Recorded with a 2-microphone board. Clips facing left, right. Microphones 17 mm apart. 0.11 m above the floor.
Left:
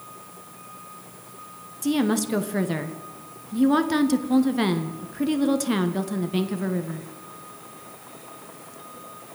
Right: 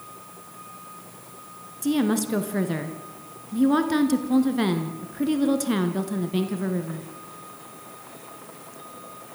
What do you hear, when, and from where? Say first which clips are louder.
1.8 s a woman speaking: even; 10° left (ahead or behind), 1.5 m